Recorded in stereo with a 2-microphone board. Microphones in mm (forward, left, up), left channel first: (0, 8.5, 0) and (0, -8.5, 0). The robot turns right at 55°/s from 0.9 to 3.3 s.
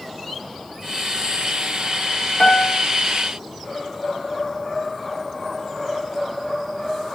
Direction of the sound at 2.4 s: 70° left (ahead or behind).